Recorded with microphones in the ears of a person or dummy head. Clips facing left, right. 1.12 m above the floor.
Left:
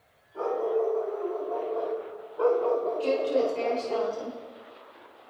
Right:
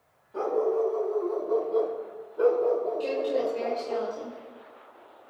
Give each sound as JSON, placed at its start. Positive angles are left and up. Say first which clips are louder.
{"t": 0.3, "sound": "a dog barking", "louder": "right 1 dB", "side_deg": -75, "distance_m": 2.0}
{"t": 3.0, "sound": "a woman speaking", "louder": "left 2 dB", "side_deg": -25, "distance_m": 3.0}